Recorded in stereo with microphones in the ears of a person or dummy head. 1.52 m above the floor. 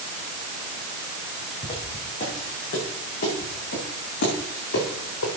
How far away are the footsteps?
About 7 m.